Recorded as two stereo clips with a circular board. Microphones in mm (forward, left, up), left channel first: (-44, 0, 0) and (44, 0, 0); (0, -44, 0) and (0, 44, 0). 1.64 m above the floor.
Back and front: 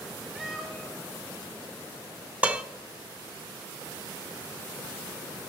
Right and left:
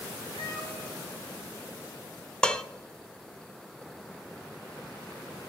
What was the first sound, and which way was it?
A cat meowing, 80° right.